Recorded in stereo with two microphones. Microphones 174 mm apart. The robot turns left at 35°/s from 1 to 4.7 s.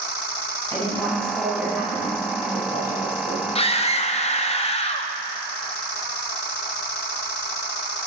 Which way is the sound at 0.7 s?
15° left.